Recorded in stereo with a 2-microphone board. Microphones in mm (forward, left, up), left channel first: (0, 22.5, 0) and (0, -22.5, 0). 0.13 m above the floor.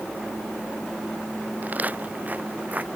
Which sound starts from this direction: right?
Footsteps, at 1.6 s.